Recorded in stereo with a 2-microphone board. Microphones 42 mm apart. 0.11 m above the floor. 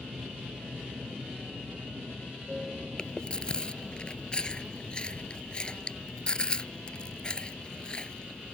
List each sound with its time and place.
0.0 s an aircraft: 45° right (ahead or behind); by 8.5 s 40° left (ahead or behind)
3.0 s chewing: 25° left (ahead or behind)